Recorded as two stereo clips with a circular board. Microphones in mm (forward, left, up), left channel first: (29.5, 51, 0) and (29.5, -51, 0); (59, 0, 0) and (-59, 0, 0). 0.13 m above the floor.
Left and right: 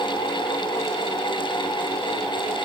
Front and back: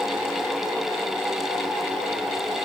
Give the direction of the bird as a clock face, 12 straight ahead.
No bird in this recording.